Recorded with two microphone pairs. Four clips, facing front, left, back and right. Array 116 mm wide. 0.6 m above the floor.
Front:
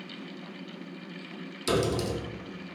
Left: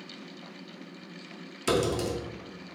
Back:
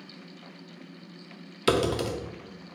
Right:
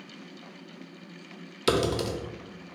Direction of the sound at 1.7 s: 160° right.